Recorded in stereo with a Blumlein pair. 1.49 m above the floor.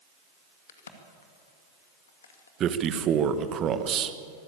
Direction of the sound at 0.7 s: 65° left.